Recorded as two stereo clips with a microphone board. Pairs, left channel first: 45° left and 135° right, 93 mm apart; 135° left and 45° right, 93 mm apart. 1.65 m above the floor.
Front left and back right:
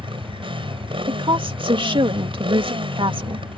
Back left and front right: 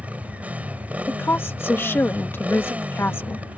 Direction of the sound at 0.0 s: 120° right.